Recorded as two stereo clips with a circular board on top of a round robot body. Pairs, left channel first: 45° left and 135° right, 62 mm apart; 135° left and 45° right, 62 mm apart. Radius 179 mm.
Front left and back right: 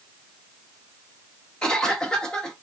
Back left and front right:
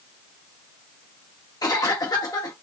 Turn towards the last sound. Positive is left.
turn(degrees=120)